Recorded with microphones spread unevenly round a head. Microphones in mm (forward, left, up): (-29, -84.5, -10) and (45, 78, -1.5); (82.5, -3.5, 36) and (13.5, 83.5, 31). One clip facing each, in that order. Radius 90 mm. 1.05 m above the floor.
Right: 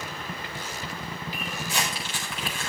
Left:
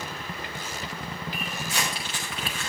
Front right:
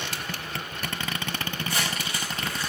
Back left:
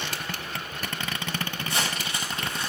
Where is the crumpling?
125° right, 4.5 m.